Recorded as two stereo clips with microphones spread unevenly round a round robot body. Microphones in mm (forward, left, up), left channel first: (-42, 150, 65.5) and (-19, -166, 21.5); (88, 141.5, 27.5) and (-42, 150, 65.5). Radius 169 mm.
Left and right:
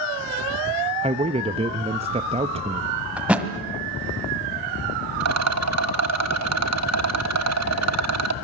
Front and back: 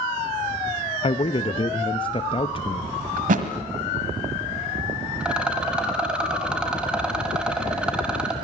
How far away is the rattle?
About 1.2 m.